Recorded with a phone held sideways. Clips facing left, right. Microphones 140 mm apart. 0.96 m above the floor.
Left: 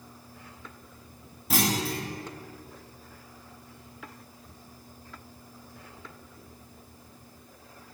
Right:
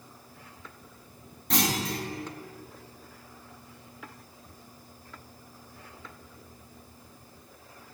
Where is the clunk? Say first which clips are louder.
Left 1 dB; 5° left (ahead or behind), 1.3 m.